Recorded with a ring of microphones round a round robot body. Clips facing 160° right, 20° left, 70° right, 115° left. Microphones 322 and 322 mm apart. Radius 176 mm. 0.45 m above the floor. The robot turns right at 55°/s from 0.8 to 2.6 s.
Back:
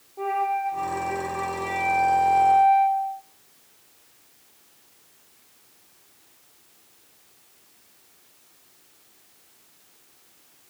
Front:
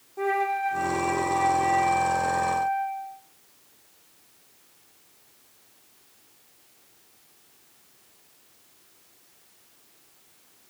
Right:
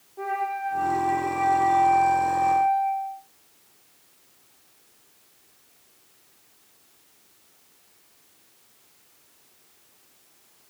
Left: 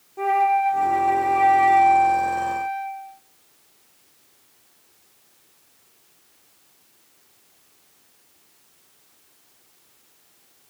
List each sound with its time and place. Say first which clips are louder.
0.2 s a flute: front 2 dB, left 9 dB; 75° left, 0.7 m; by 3.2 s 175° left, 0.7 m